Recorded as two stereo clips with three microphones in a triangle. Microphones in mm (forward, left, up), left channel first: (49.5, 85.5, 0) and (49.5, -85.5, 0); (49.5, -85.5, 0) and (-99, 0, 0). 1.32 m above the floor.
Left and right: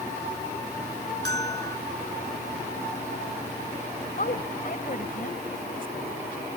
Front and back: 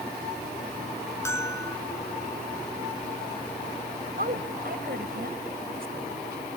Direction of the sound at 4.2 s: 125° left.